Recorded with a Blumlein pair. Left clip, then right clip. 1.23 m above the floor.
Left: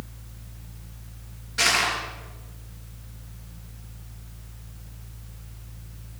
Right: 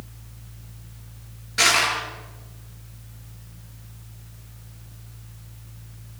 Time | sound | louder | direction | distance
0.0 | a fan | left 2 dB | 5° left | 0.9 m
1.6 | crushing | right 3 dB | 20° right | 9 m